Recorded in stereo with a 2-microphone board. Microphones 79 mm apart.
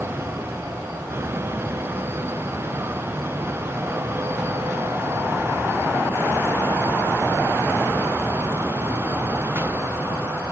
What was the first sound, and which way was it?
Only background noise.